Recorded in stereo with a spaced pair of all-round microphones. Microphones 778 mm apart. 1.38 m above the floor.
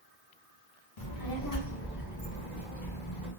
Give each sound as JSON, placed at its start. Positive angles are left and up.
{"t": 1.0, "sound": "a child speaking", "side_deg": 30, "distance_m": 0.8}